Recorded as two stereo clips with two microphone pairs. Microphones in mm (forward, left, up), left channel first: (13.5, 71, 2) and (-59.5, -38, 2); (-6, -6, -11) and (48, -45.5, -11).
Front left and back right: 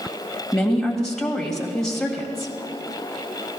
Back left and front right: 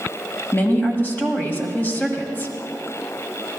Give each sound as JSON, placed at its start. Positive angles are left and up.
{"t": 0.5, "sound": "a woman speaking", "azimuth_deg": 140, "distance_m": 1.7}